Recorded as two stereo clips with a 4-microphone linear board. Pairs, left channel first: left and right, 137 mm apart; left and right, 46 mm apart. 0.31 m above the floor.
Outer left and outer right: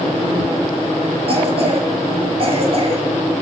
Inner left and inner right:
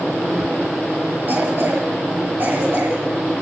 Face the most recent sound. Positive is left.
turn(degrees=-45)  # may be behind; listen again after turning